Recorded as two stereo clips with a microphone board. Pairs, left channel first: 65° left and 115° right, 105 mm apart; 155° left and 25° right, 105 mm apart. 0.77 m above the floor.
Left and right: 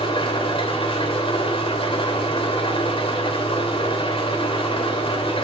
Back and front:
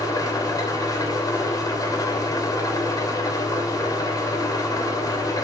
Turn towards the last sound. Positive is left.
turn(degrees=100)